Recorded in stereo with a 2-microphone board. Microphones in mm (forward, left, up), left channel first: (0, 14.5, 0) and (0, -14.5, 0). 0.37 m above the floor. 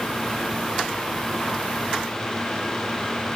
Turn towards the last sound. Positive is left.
No sound to turn to.